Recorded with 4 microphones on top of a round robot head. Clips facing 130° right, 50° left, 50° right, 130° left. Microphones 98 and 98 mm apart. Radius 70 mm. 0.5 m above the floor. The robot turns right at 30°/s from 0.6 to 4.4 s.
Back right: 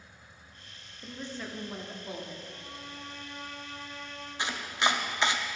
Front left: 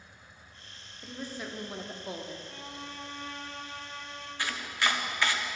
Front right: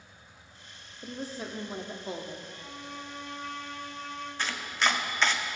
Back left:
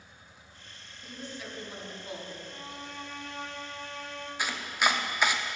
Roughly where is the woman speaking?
Ahead right.